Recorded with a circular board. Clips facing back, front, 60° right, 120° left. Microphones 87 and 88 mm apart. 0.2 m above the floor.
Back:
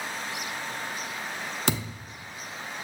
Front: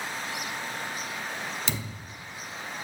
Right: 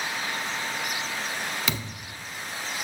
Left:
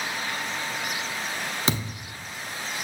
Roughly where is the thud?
Behind.